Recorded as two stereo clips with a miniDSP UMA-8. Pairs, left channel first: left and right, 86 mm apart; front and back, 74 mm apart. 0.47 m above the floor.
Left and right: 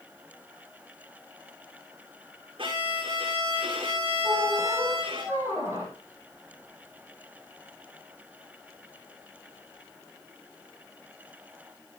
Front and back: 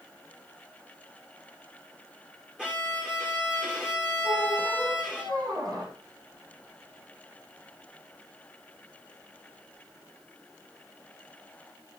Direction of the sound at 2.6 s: 100° right.